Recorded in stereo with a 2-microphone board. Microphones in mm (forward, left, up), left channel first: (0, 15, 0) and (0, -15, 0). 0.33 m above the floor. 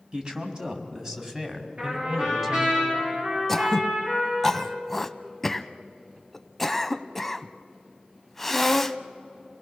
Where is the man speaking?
35° right (ahead or behind), 2.5 m; by 2.8 s 5° right (ahead or behind), 2.5 m.